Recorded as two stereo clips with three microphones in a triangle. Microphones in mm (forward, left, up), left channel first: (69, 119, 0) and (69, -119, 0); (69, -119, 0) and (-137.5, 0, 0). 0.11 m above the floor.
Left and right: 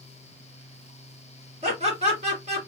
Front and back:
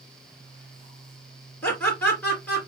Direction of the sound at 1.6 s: 105° right.